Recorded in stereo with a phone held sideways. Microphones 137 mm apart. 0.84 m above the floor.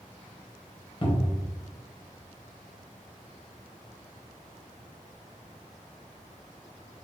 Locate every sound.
1.0 s a cupboard door: 40° left (ahead or behind), 0.7 m